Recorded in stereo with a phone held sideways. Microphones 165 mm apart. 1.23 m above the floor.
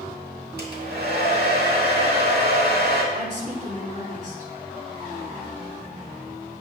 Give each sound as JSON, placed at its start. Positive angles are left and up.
{"t": 0.6, "sound": "a hair dryer", "side_deg": -75, "distance_m": 1.8}
{"t": 3.1, "sound": "a woman speaking", "side_deg": -50, "distance_m": 2.5}